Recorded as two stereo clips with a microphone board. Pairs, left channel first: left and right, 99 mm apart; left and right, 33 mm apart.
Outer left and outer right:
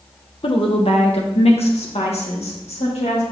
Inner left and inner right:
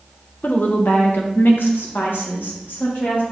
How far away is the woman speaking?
About 0.9 m.